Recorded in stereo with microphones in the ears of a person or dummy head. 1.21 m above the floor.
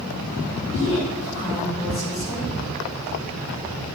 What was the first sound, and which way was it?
A woman speaking, 30° left (ahead or behind).